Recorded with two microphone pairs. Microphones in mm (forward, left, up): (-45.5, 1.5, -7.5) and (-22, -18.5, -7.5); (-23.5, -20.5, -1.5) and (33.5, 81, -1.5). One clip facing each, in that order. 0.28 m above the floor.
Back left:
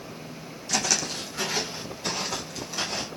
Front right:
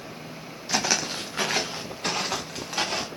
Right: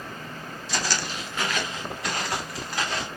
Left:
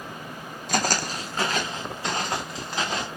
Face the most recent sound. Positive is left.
turn(degrees=-10)